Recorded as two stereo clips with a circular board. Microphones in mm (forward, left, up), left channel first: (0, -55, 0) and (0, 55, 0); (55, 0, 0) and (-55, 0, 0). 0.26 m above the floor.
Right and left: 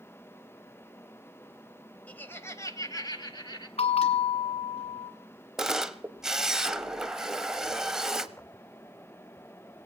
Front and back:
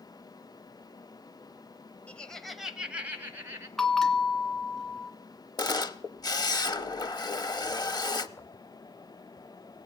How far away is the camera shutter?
About 0.6 m.